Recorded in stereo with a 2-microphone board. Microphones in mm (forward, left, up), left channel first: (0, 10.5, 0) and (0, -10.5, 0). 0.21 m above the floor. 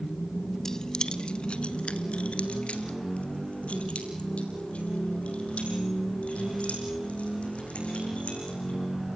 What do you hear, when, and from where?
0.7 s keys jangling: 20° left (ahead or behind), 0.7 m; by 8.8 s 80° left, 8 m